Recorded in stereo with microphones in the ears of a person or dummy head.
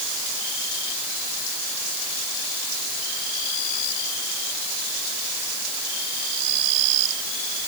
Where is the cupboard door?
I don't hear a cupboard door.